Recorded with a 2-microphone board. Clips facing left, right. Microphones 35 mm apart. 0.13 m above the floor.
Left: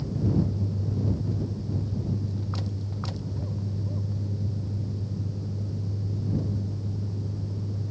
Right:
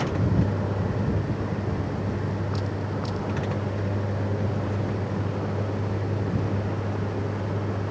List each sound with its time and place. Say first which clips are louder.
0.0 s a vehicle: right 2 dB; 85° right